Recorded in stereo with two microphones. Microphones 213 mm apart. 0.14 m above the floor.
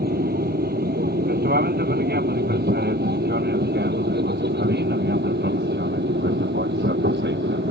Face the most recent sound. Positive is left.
turn(degrees=-55)  # may be behind; listen again after turning